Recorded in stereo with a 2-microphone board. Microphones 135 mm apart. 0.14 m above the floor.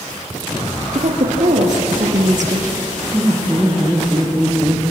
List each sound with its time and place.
0.9 s a woman speaking: 65° right (ahead or behind), 3.5 m
3.1 s laughter: 10° right (ahead or behind), 5.5 m